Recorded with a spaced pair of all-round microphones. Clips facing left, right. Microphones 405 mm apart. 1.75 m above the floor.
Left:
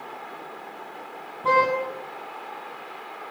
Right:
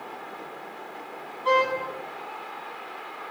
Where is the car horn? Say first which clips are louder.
Left 1 dB; 65° left (ahead or behind), 7.5 m.